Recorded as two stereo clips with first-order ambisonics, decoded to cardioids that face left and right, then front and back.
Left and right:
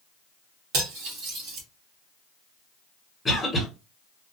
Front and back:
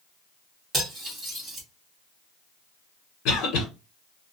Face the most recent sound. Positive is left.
turn(degrees=10)